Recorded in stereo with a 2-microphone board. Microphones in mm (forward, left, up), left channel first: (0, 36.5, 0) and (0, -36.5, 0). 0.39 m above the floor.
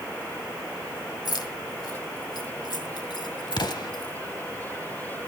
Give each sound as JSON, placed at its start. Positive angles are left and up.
{"t": 1.2, "sound": "keys jangling", "side_deg": 60, "distance_m": 1.7}
{"t": 3.5, "sound": "an explosion", "side_deg": 70, "distance_m": 0.9}